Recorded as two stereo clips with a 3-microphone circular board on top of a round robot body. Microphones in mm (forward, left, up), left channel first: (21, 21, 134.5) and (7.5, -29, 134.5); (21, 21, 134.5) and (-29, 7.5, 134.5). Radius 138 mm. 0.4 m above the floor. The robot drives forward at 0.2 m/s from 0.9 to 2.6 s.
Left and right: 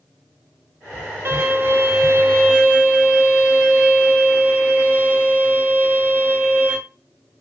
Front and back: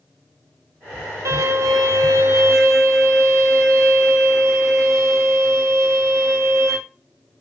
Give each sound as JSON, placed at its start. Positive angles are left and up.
{"t": 1.2, "sound": "a violin", "azimuth_deg": -150, "distance_m": 0.5}